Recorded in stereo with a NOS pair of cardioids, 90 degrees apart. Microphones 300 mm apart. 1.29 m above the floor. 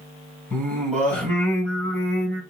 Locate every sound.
0.5 s singing: 5° left, 3 m